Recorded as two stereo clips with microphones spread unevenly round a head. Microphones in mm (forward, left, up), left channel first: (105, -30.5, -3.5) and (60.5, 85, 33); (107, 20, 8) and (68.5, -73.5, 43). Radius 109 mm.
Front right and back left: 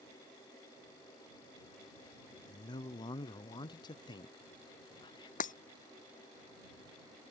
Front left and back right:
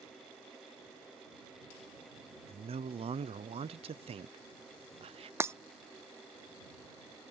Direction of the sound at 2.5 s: 90° right.